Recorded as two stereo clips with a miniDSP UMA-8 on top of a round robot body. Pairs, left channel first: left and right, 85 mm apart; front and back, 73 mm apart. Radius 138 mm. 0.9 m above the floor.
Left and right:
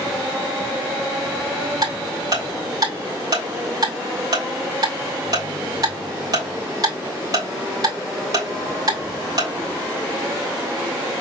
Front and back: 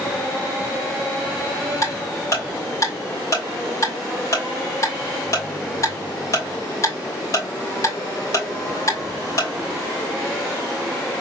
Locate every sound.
1.8 s ticking: 45° right, 3 m